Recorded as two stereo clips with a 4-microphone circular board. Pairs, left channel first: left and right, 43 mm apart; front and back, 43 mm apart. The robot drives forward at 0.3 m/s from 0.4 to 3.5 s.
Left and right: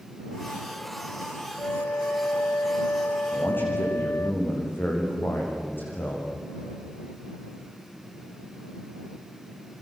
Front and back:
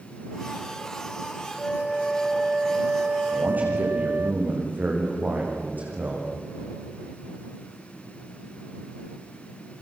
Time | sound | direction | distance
1.6 | a flute | 70° left | 0.5 m
3.3 | a man speaking | 130° left | 8 m